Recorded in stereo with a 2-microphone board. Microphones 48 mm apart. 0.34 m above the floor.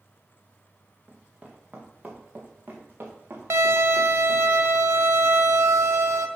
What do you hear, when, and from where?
1.1 s running footsteps: 20° right (ahead or behind), 2 m; by 4.5 s 60° right (ahead or behind), 3 m
3.5 s a violin: 75° right (ahead or behind), 0.6 m